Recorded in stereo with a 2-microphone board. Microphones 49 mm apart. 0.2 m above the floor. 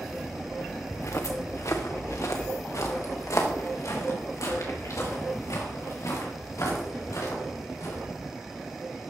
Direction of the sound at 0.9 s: 70° left (ahead or behind).